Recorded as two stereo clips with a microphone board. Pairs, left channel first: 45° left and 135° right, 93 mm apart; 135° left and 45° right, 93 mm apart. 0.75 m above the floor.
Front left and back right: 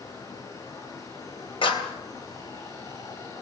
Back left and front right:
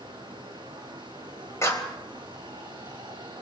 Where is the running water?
10° right, 8 m.